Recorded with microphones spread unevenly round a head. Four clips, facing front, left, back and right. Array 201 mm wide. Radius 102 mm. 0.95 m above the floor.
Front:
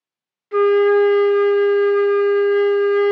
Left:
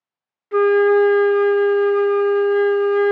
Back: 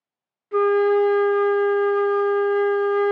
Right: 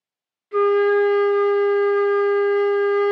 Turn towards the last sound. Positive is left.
turn(degrees=75)